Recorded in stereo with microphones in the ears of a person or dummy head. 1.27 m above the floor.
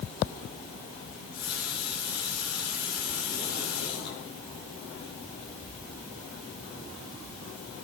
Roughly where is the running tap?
Left.